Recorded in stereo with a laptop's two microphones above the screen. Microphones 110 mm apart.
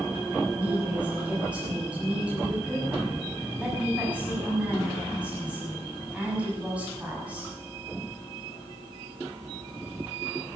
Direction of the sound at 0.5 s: 10° right (ahead or behind).